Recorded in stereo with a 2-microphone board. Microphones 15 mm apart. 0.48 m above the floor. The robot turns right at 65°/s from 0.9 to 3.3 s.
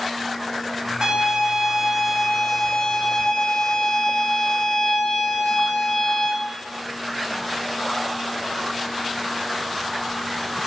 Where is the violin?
90° right, 1.3 m; by 6.3 s 60° left, 1.3 m.